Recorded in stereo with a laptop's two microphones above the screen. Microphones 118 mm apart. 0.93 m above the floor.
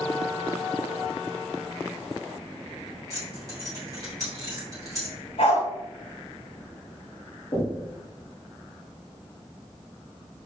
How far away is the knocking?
About 1.3 m.